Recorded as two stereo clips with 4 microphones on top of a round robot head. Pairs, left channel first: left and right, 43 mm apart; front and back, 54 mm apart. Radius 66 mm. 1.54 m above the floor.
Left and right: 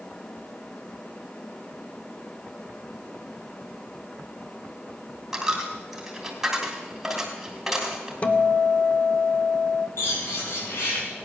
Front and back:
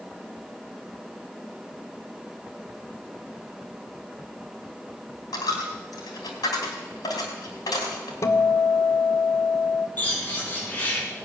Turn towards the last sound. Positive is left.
turn(degrees=60)